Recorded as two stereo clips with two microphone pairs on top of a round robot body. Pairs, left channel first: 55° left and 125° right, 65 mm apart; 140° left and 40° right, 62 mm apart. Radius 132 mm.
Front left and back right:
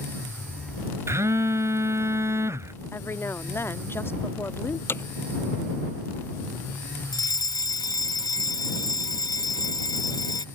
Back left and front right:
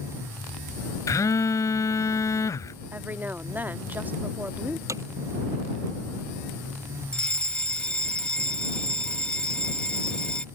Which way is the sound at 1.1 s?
Straight behind.